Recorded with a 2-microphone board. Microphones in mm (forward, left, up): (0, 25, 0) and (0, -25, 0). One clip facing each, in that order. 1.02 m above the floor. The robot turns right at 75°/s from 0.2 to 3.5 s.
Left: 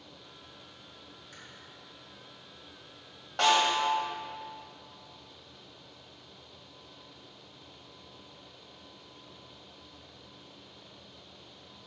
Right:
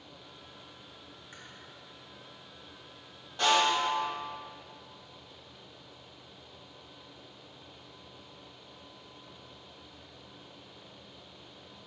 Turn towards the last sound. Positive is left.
turn(degrees=75)  # may be behind; listen again after turning